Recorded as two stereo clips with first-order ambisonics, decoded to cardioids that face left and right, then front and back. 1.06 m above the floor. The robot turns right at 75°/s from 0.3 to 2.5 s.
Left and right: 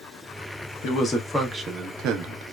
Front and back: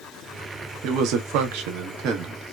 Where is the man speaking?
135° left, 0.9 m; by 2.5 s 100° right, 0.9 m.